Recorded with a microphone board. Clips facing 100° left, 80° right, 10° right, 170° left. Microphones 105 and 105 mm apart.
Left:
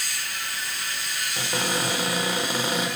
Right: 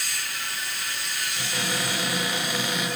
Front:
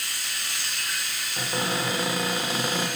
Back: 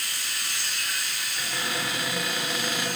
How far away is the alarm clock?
I don't hear an alarm clock.